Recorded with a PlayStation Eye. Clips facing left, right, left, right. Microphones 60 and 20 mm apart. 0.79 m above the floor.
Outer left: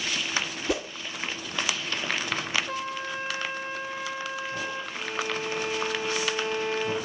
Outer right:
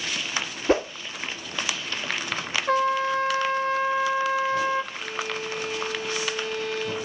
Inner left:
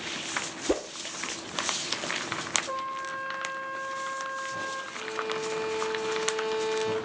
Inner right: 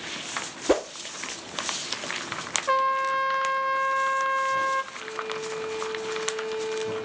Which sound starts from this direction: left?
A violin, at 4.9 s.